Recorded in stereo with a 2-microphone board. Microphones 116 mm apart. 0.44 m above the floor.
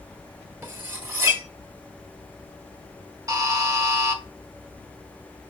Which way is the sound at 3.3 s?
30° right (ahead or behind).